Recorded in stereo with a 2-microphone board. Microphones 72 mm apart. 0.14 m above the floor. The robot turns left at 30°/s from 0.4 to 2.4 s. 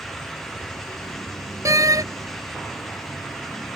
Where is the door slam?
45° right (ahead or behind); by 2.0 s 55° right (ahead or behind).